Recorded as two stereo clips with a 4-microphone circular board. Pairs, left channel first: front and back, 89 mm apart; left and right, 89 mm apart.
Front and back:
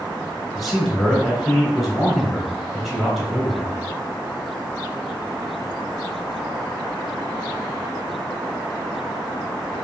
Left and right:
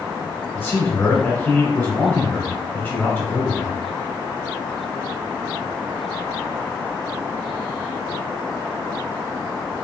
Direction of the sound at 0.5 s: 90° left.